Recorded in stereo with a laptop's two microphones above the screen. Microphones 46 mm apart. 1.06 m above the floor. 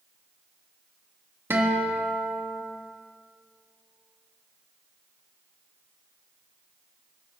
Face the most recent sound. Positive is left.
turn(degrees=-60)  # may be behind; listen again after turning